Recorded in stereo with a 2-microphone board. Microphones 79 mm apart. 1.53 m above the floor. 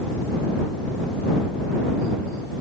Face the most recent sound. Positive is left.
No sound to turn to.